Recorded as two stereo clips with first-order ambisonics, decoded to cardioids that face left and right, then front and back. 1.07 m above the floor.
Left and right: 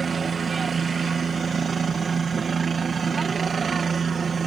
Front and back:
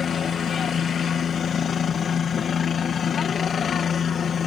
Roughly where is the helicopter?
Ahead right.